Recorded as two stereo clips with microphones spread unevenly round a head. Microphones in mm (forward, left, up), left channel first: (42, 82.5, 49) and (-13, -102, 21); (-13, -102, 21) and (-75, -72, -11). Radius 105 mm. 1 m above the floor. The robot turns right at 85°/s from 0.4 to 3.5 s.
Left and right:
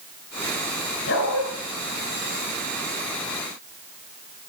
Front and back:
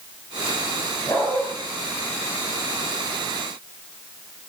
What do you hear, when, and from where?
1.1 s a dog barking: 40° left, 5.5 m; by 1.4 s 75° left, 5.5 m